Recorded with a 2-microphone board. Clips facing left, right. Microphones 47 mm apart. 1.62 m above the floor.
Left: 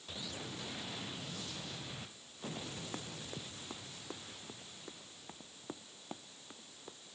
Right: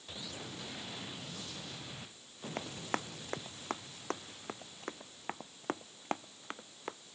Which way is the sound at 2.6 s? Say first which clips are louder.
Right 11 dB; 60° right (ahead or behind).